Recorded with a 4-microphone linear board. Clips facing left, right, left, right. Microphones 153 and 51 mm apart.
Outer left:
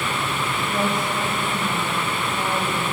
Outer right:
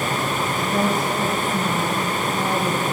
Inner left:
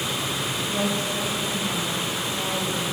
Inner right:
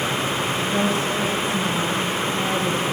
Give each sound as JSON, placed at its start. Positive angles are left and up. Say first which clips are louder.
{"t": 0.6, "sound": "a woman speaking", "louder": "outer right 3 dB, inner right 3 dB", "side_deg": -70, "distance_m": 6.5}